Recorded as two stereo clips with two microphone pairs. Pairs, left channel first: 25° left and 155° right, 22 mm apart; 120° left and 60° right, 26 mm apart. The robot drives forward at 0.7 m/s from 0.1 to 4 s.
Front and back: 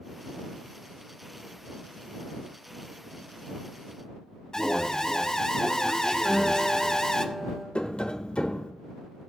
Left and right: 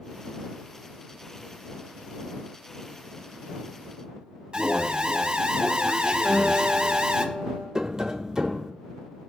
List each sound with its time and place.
4.5 s an alarm: 5° right, 0.9 m
6.2 s a guitar: 110° left, 2 m
7.8 s tapping: 15° left, 0.7 m